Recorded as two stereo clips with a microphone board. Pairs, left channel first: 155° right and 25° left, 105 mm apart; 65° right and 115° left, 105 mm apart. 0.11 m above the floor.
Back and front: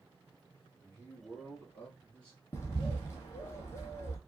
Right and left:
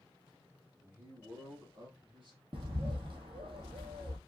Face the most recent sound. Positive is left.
turn(degrees=140)